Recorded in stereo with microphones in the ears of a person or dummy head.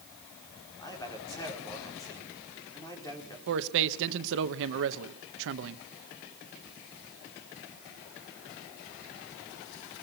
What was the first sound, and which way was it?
A man speaking, 15° left (ahead or behind).